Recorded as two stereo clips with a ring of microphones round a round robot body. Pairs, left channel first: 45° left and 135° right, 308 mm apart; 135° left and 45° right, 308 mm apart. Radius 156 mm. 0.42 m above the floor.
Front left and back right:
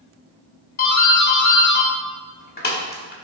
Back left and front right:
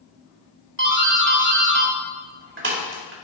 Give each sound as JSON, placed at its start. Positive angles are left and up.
{"t": 0.8, "sound": "a doorbell", "azimuth_deg": -5, "distance_m": 2.0}